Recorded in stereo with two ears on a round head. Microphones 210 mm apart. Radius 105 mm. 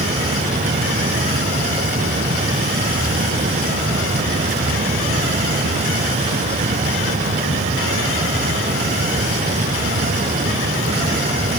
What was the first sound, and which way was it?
Only background noise.